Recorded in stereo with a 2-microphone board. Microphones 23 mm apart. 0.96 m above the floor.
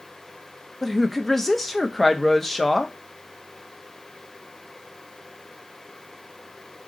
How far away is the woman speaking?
About 0.6 m.